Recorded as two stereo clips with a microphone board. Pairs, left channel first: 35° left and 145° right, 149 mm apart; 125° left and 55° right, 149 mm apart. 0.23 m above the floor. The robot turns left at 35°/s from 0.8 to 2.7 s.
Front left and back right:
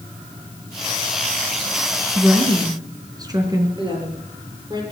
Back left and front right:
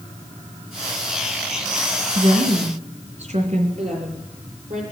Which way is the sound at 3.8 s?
80° right.